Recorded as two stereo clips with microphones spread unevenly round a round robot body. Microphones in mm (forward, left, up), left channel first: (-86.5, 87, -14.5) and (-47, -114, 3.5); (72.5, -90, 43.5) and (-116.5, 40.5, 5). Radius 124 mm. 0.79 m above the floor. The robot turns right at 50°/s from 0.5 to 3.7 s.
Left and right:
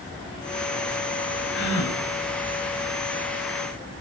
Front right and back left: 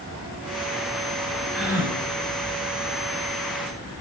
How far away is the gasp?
About 5.5 m.